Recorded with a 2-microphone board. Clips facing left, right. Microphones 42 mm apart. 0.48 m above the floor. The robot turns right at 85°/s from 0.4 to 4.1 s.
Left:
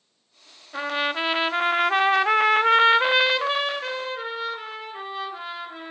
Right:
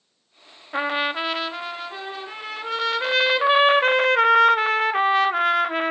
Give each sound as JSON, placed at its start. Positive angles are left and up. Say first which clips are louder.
{"t": 0.7, "sound": "a trumpet", "louder": "right 2 dB", "azimuth_deg": -35, "distance_m": 0.6}